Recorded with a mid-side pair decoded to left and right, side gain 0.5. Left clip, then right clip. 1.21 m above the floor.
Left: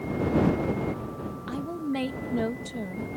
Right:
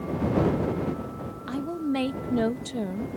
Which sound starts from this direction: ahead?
A woman speaking, at 1.5 s.